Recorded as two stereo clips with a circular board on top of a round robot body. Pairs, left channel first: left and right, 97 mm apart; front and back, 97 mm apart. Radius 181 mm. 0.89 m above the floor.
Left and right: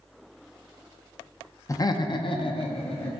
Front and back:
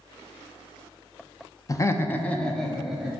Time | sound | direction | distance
1.7 | laughter | 45° left | 0.9 m